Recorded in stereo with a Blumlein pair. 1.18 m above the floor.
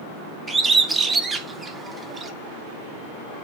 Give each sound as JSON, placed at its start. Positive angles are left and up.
{"t": 0.5, "sound": "a bird", "azimuth_deg": -10, "distance_m": 0.6}